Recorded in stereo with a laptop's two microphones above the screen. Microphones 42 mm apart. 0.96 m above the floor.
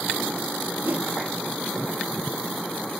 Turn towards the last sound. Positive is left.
turn(degrees=-55)  # may be behind; listen again after turning